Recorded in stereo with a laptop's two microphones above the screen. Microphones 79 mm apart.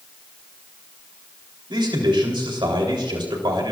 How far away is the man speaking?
About 3.5 m.